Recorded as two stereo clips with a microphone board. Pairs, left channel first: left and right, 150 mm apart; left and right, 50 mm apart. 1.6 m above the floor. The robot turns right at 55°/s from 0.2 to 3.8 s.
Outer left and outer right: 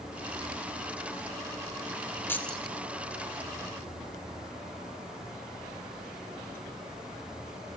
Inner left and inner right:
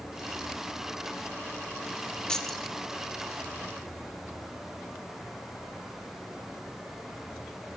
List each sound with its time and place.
2.3 s keys jangling: 15° left (ahead or behind), 0.8 m; by 2.8 s 5° right (ahead or behind), 0.8 m